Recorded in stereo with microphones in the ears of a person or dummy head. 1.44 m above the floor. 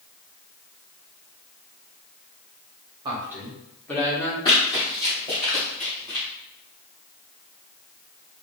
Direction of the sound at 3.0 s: 20° right (ahead or behind).